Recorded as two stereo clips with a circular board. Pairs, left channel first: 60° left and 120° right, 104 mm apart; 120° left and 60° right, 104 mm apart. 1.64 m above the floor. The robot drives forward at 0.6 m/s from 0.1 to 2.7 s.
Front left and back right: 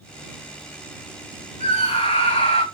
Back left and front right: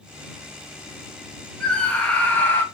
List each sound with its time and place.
1.6 s a scream: 40° left, 3 m; by 2.6 s 50° left, 2.5 m